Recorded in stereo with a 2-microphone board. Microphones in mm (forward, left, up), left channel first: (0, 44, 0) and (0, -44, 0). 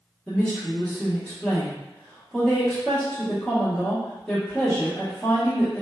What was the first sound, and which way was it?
A woman speaking, 10° left (ahead or behind).